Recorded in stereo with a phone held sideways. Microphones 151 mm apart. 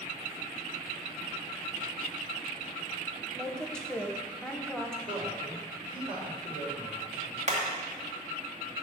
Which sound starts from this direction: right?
Hammering, at 7.5 s.